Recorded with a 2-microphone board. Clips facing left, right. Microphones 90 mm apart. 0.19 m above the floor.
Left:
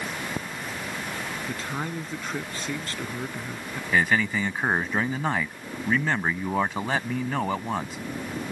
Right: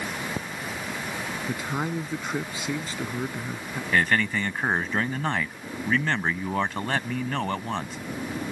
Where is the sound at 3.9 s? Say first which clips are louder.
Even; 10° left (ahead or behind).